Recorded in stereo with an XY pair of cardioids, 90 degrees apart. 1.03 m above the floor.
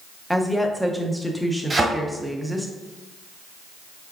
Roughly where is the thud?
Ahead right.